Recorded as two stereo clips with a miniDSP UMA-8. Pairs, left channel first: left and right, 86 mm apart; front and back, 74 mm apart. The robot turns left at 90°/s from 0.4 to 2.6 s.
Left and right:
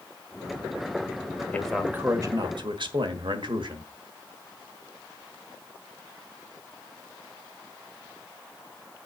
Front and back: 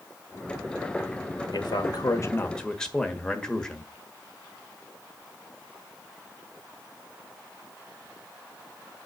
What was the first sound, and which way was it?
A man speaking, 20° left.